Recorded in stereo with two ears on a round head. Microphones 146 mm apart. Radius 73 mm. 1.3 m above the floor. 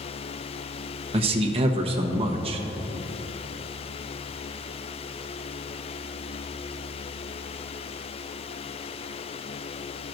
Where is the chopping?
I don't hear chopping.